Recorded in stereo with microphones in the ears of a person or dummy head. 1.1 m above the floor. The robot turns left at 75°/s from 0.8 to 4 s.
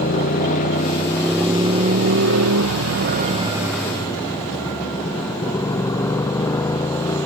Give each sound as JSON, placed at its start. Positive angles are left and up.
{"t": 0.0, "sound": "a motorcycle", "azimuth_deg": 45}